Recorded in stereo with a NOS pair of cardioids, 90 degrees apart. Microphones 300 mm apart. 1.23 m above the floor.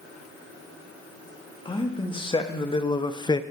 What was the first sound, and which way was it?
A man speaking, 15° left.